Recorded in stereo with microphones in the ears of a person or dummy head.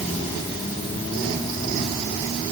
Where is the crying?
No crying in this recording.